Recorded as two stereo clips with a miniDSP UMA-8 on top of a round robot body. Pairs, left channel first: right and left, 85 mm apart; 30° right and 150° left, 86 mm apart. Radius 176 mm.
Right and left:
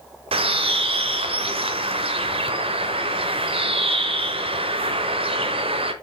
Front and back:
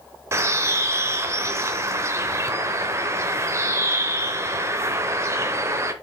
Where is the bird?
90° left, 0.7 m.